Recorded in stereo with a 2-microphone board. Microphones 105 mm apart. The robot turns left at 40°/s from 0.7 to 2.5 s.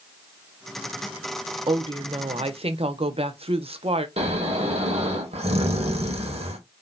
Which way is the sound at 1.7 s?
55° right.